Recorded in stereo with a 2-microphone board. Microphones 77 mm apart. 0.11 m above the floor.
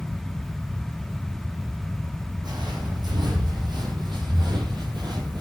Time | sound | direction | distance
2.4 | footsteps | 65° right (ahead or behind) | 6 m